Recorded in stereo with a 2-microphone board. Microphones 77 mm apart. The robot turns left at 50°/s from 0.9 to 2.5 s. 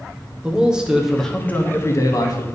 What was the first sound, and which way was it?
A man speaking, 170° right.